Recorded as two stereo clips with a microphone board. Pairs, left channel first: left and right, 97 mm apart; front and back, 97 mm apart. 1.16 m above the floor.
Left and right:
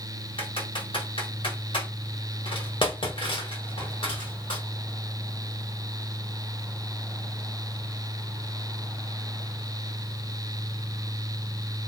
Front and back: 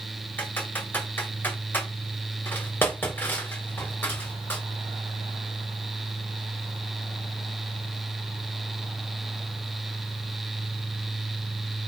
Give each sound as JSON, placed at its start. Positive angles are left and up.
{"t": 0.4, "sound": "typing on a keyboard", "azimuth_deg": 65, "distance_m": 2.5}